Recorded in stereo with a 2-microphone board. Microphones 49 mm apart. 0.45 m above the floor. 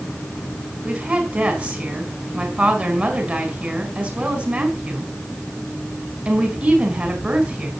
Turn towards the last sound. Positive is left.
turn(degrees=-25)  # may be behind; listen again after turning